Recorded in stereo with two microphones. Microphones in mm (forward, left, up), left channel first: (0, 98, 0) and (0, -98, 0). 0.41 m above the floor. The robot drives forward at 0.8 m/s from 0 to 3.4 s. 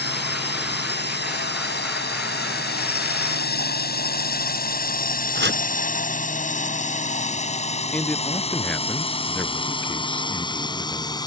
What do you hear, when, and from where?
0.0 s a drone: 60° left (ahead or behind); by 11.3 s 20° left (ahead or behind)
5.3 s chopping: 65° right (ahead or behind)
7.9 s a man speaking: 5° left (ahead or behind)